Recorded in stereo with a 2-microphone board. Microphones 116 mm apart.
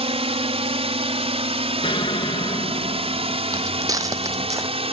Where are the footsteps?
35° right (ahead or behind); by 4.7 s 30° right (ahead or behind).